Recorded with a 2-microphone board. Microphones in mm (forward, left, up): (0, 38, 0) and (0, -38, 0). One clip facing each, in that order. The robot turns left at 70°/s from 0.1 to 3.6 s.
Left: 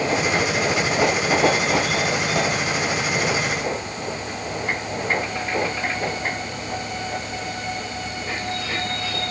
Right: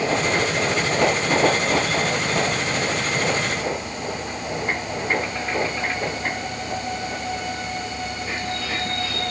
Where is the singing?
No singing in this recording.